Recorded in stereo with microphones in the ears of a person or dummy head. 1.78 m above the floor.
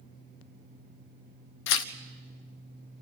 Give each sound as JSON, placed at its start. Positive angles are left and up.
{"t": 1.7, "sound": "tearing paper", "side_deg": 65, "distance_m": 0.6}